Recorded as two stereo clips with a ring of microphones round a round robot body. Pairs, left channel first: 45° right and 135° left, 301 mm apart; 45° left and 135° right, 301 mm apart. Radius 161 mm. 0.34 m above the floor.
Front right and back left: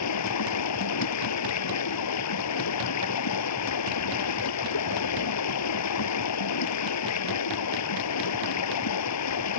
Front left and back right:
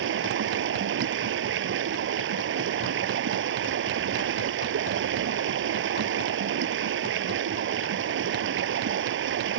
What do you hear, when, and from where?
0.0 s running water: 80° right